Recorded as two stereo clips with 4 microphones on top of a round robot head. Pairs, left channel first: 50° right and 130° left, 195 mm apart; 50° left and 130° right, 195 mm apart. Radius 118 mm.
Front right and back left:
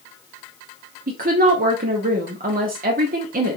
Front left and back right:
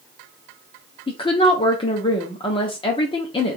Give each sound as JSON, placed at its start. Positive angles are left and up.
{"t": 1.1, "sound": "a woman speaking", "azimuth_deg": 105, "distance_m": 1.0}